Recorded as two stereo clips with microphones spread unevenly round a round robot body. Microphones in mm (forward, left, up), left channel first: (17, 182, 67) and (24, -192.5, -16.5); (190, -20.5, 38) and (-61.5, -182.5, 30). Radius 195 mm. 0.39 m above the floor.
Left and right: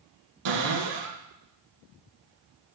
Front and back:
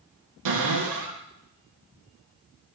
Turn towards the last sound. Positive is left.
turn(degrees=-135)